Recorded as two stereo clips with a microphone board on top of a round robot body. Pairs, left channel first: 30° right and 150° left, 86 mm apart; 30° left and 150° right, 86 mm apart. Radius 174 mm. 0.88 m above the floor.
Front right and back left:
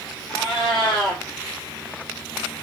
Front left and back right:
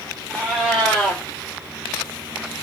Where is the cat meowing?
65° right, 3 m.